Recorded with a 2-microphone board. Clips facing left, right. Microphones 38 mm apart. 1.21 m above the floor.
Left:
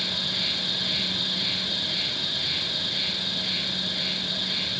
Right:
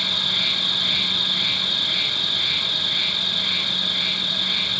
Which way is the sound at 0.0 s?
65° right (ahead or behind).